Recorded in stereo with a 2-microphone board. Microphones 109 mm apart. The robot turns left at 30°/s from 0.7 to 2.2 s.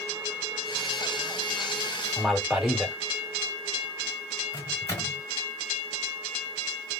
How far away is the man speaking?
About 1.2 m.